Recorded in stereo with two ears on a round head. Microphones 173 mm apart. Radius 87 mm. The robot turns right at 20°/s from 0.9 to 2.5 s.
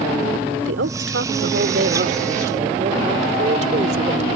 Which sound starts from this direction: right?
A woman speaking, at 0.6 s.